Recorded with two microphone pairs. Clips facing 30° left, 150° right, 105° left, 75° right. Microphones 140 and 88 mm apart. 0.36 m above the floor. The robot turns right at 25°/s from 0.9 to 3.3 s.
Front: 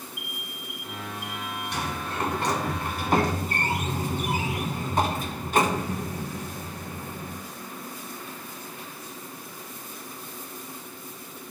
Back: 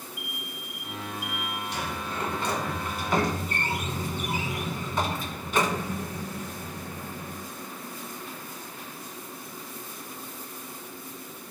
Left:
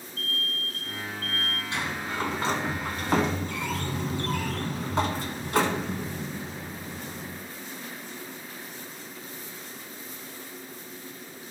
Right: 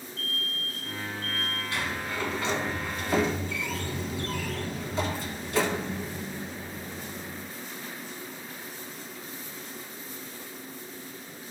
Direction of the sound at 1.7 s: 40° left.